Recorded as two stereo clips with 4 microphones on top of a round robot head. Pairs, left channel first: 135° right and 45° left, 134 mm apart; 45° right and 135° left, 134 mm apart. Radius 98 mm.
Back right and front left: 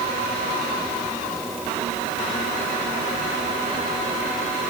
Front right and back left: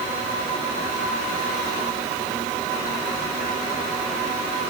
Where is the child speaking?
No child speaking in this recording.